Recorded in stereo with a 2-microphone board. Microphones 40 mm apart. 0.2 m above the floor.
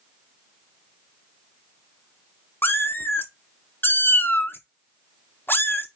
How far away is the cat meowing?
About 0.5 m.